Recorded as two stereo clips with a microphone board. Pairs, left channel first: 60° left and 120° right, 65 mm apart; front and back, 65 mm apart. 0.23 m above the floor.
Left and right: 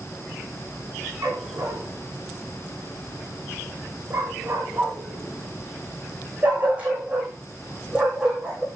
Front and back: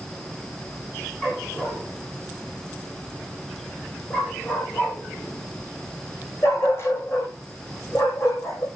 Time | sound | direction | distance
1.2 | a dog barking | 75° right | 7 m